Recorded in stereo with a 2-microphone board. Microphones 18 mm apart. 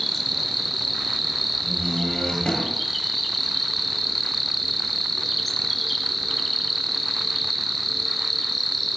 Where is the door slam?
55° left (ahead or behind), 8 m.